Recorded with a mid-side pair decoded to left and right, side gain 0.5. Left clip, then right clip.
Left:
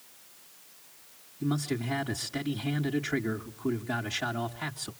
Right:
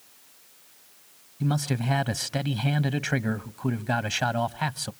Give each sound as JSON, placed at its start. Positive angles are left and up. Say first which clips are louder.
{"t": 1.4, "sound": "a man speaking", "louder": "right 2 dB", "azimuth_deg": -65, "distance_m": 0.9}